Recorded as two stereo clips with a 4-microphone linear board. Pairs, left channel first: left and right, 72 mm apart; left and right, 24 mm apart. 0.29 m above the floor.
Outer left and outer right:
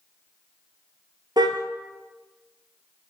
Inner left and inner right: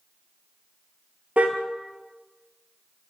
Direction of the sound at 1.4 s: 70° right (ahead or behind).